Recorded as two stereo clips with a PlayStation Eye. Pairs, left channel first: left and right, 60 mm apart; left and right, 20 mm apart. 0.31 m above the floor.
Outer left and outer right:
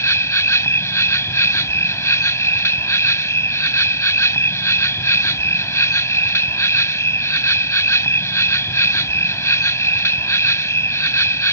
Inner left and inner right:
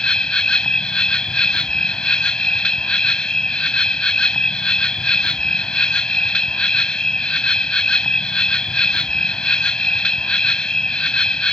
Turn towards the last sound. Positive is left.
turn(degrees=55)  # may be behind; listen again after turning